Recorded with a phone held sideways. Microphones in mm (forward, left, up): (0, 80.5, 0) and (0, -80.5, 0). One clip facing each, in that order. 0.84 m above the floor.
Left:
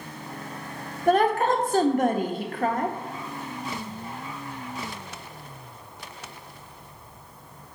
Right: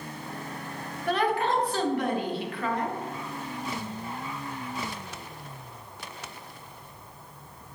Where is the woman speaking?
45° left (ahead or behind), 0.6 m.